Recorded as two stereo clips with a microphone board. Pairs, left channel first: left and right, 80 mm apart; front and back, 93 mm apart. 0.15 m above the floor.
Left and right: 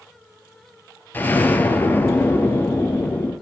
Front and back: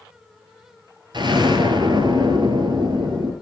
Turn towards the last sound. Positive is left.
turn(degrees=155)